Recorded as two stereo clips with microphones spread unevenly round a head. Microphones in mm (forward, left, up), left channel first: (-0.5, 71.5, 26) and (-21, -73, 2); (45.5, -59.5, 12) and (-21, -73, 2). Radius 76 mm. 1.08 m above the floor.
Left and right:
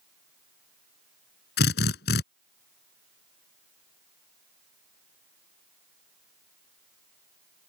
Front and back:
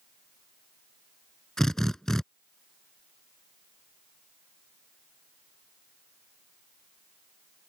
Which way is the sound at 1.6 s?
95° left.